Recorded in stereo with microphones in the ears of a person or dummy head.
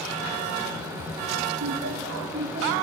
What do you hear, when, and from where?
1.6 s laughter: 65° right (ahead or behind), 1.7 m; by 2.7 s 35° right (ahead or behind), 3 m